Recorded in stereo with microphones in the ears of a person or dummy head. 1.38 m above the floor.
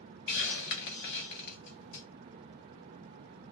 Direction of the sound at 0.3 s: 45° left (ahead or behind).